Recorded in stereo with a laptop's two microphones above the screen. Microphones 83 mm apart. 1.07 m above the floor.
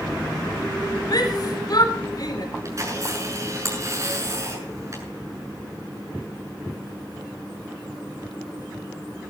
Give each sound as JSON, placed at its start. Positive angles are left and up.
{"t": 1.1, "sound": "a shout", "side_deg": 50, "distance_m": 4.5}
{"t": 2.6, "sound": "a camera shutter", "side_deg": -40, "distance_m": 7.0}